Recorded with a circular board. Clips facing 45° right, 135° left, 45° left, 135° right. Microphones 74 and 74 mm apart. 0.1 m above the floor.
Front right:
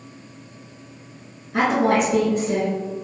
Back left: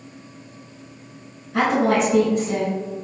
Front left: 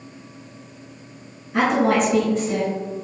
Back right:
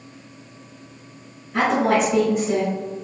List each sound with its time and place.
1.5 s a woman speaking: 25° right, 1.3 m; by 2.7 s 85° right, 1.4 m